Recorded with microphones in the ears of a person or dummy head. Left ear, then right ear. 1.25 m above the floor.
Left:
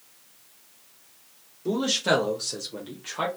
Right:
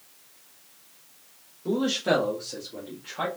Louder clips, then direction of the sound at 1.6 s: Left 1 dB; 5° left (ahead or behind).